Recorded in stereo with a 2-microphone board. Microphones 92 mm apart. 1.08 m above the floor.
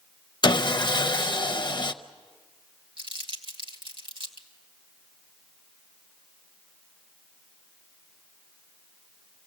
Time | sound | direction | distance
0.4 | sawing | 50° left (ahead or behind) | 0.6 m
3.0 | crumpling | 70° right (ahead or behind) | 2.0 m